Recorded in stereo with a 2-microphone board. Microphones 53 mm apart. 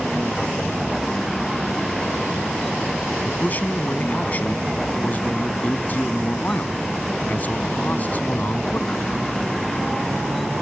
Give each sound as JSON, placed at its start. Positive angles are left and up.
{"t": 0.0, "sound": "a vehicle", "side_deg": 0}
{"t": 3.2, "sound": "a man speaking", "side_deg": 35}